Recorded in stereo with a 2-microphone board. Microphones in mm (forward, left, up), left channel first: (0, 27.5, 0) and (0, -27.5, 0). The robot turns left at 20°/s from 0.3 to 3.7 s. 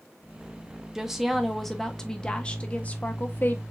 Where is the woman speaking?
170° right, 0.9 m; by 3.6 s 135° left, 0.9 m.